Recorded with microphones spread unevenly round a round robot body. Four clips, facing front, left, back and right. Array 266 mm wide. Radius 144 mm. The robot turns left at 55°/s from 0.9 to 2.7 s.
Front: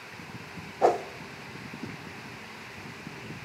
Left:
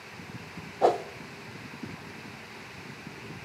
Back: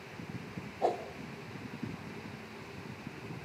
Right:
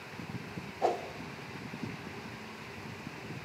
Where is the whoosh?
40° left, 0.7 m; by 1.0 s 30° left, 0.7 m.